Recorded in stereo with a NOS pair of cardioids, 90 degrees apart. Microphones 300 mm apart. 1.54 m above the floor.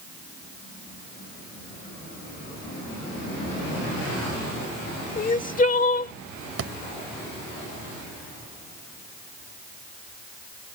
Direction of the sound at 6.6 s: 50° right.